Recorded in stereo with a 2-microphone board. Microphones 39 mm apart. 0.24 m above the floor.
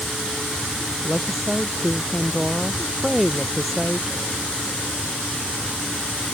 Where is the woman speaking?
Centre (ahead or behind).